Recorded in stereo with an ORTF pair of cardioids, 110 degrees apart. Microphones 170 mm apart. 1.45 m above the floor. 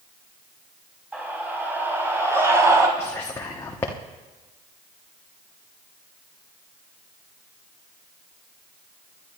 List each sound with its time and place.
1.1 s a scream: 10° right, 4.5 m; by 2.9 s 20° right, 4 m
3.0 s whispering: 15° left, 1.1 m